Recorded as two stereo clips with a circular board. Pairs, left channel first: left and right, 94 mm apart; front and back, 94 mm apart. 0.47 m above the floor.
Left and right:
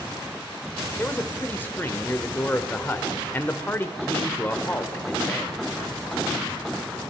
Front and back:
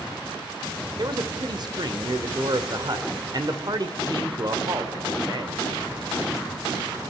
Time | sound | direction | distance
1.0 | a man speaking | 155° left | 1.2 m